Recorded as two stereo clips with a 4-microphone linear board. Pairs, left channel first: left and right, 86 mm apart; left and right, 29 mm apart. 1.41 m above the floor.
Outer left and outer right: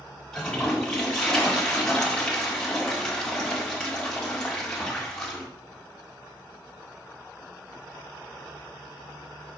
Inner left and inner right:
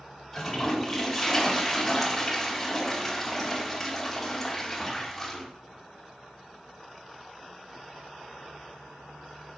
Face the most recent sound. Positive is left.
turn(degrees=10)  # may be behind; listen again after turning